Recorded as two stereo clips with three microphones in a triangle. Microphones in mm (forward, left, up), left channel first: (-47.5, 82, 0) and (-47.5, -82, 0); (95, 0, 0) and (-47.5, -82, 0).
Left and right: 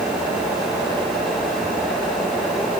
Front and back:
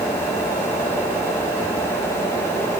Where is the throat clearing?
No throat clearing in this recording.